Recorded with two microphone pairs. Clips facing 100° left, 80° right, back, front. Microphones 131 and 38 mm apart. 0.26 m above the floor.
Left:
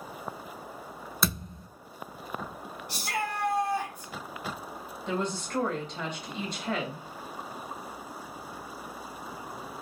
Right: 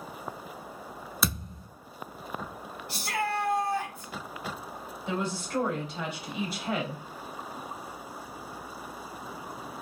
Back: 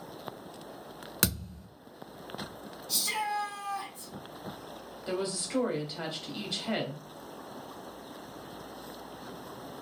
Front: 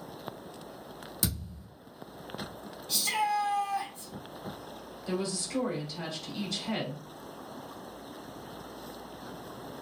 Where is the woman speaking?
160° right, 1.0 m.